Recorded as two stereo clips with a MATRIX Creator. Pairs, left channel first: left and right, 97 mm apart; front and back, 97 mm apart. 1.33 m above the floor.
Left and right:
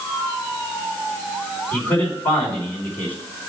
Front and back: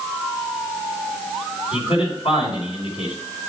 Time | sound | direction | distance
1.7 | a man speaking | 20° left | 4 m